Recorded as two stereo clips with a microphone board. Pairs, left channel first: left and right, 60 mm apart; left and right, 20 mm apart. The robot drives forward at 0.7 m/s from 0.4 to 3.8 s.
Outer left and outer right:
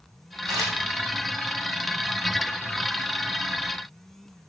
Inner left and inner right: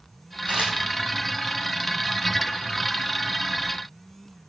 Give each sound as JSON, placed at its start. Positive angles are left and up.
{"t": 0.5, "sound": "a camera shutter", "side_deg": -75, "distance_m": 7.0}